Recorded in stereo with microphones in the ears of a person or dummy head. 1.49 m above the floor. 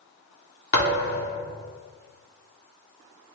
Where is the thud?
60° left (ahead or behind), 1.6 m.